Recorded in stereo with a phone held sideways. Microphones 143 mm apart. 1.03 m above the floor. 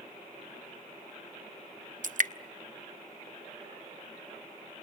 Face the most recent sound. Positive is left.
turn(degrees=-65)  # may be behind; listen again after turning